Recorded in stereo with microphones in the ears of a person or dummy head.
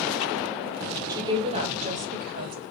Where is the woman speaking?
20° right (ahead or behind), 1.3 m; by 2.6 s 55° right (ahead or behind), 1.7 m.